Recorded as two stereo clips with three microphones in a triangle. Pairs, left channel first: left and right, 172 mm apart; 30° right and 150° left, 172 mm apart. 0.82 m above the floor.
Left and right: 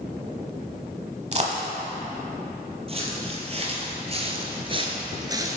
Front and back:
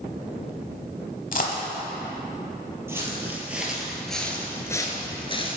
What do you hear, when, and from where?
1.3 s a dropped coin: 50° right, 1.0 m
2.9 s footsteps: 135° right, 1.5 m; by 5.6 s 30° right, 0.9 m